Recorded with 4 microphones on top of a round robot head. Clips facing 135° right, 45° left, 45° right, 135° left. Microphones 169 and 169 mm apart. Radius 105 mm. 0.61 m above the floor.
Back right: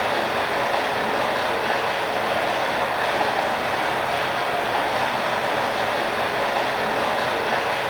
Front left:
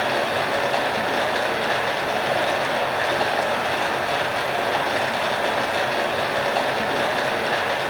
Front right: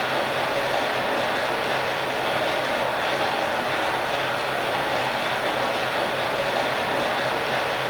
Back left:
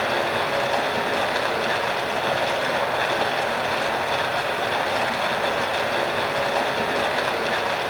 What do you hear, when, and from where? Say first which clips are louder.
0.0 s running water: front left 1 dB, back left 2 dB; 105° left, 2 m